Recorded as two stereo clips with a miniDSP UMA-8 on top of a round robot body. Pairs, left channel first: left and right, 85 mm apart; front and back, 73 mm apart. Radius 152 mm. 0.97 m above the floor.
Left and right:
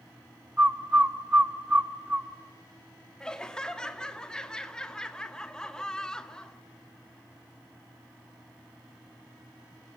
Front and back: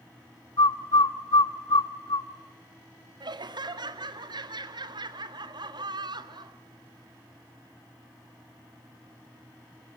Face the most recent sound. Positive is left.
turn(degrees=170)